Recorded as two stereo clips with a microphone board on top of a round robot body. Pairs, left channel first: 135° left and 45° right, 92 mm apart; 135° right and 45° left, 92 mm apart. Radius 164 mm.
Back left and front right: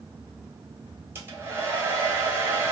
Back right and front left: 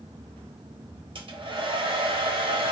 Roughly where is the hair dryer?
Ahead.